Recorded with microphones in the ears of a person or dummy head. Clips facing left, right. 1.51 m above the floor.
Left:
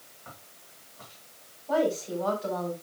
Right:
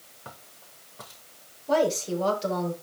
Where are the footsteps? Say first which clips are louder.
Right 4 dB; 55° right (ahead or behind), 5.5 m.